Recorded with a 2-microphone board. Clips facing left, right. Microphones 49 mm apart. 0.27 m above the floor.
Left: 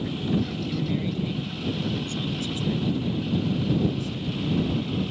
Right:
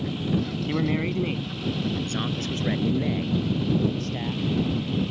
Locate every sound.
0.7 s a man speaking: 45° right (ahead or behind); by 5.0 s 55° right (ahead or behind)